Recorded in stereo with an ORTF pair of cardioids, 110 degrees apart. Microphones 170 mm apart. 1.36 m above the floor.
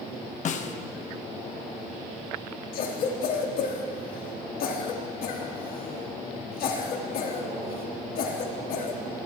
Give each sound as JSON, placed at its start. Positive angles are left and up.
{"t": 0.5, "sound": "a snare drum", "azimuth_deg": 50, "distance_m": 1.2}
{"t": 2.7, "sound": "a cough", "azimuth_deg": 65, "distance_m": 3.5}